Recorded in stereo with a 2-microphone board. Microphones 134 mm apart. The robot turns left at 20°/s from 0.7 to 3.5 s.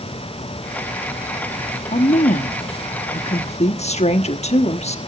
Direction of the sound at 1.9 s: 100° left.